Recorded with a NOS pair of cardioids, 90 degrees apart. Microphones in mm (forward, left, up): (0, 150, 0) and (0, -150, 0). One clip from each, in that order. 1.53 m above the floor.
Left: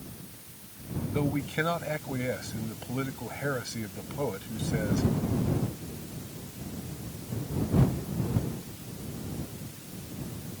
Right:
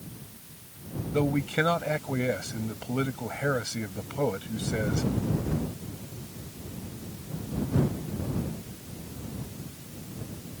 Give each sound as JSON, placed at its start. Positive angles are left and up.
{"t": 1.1, "sound": "a man speaking", "azimuth_deg": -30}